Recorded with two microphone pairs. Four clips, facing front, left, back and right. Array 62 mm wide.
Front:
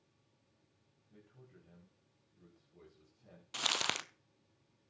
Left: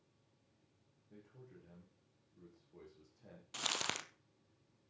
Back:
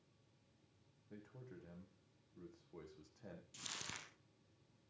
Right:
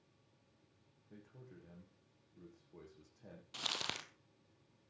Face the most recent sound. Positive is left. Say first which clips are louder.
# left 3 dB, front 17 dB
turn(degrees=10)